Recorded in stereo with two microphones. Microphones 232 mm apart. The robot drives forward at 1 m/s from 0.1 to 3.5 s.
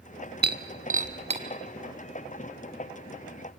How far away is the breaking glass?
About 0.9 m.